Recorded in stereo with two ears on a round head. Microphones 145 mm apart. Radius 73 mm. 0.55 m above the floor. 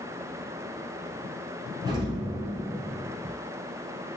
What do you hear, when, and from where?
1.9 s an explosion: 30° right (ahead or behind), 1.5 m